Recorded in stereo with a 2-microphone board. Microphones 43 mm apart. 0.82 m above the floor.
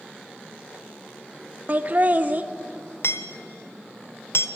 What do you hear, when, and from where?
1.7 s laughter: 40° right (ahead or behind), 0.6 m
3.0 s hammering: 70° left (ahead or behind), 1.0 m